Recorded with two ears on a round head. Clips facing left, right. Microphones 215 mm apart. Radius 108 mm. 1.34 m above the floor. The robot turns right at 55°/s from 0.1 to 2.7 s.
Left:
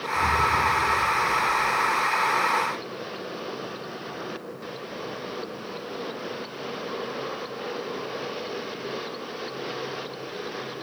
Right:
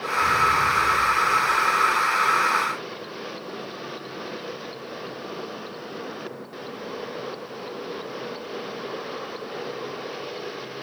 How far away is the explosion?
About 9 m.